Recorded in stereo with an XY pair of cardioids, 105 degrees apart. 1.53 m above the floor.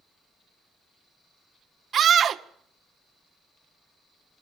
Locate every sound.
1.9 s a scream: 50° right, 1.7 m